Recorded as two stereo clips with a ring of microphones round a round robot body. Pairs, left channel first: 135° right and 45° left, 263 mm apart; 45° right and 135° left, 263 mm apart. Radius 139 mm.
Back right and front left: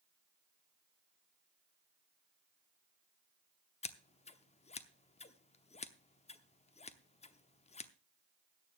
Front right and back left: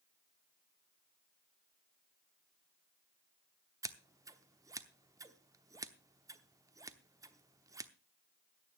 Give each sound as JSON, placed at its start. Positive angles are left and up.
{"t": 3.8, "sound": "scissors", "azimuth_deg": -165, "distance_m": 0.9}